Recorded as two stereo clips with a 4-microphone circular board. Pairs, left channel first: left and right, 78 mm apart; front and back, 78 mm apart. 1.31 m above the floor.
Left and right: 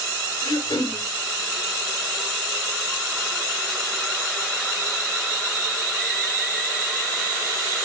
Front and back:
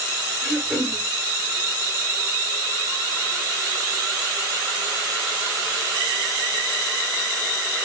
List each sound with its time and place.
0.4 s throat clearing: 110° left, 4 m